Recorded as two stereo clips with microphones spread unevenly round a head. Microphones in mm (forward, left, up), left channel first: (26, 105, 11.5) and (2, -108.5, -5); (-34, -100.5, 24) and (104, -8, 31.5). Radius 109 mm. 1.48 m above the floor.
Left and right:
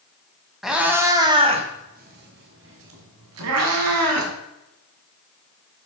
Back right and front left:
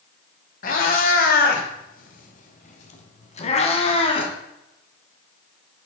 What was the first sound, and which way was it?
A cat meowing, 170° left.